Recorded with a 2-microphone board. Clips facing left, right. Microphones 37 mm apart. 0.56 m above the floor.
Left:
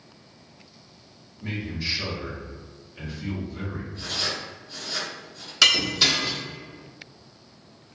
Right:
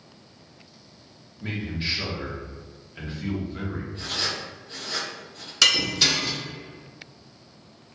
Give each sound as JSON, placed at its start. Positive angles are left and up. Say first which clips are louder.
{"t": 1.4, "sound": "a man speaking", "louder": "right 1 dB", "side_deg": -35, "distance_m": 0.8}
{"t": 3.9, "sound": "writing", "louder": "left 1 dB", "side_deg": -50, "distance_m": 1.1}
{"t": 5.6, "sound": "breaking glass", "louder": "left 1 dB", "side_deg": 5, "distance_m": 0.5}